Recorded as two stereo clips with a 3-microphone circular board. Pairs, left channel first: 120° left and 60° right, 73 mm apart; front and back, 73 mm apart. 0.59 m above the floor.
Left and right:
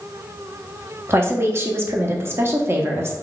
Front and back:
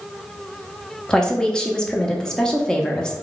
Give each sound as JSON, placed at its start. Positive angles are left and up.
{"t": 1.1, "sound": "a woman speaking", "azimuth_deg": -70, "distance_m": 0.7}